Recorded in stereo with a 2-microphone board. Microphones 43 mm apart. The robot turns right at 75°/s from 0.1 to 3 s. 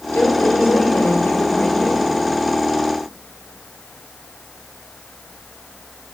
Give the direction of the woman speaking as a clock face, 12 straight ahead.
11 o'clock.